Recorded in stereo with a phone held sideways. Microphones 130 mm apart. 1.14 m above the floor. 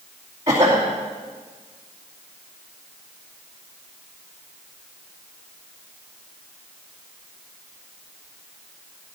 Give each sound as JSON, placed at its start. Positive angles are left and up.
{"t": 0.5, "sound": "a cough", "side_deg": -30, "distance_m": 3.0}